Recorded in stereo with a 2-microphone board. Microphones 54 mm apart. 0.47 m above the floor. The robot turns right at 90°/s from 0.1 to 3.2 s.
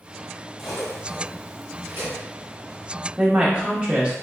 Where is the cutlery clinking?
5° right (ahead or behind), 1.2 m; by 2.2 s 30° right (ahead or behind), 1.2 m.